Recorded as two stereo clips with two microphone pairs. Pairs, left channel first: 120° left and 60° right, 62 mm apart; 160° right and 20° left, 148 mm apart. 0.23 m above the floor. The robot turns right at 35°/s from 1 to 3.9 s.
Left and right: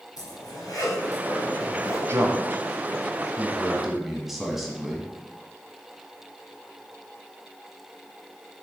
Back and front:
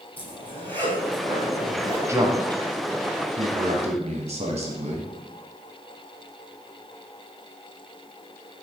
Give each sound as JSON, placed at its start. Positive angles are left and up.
{"t": 0.2, "sound": "a zipper", "azimuth_deg": 125, "distance_m": 3.5}
{"t": 2.1, "sound": "a man speaking", "azimuth_deg": -40, "distance_m": 1.4}